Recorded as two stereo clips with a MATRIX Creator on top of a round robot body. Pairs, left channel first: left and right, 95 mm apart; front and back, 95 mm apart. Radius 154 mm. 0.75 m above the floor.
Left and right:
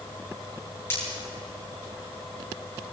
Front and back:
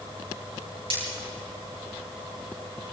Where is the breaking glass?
160° left, 9.5 m.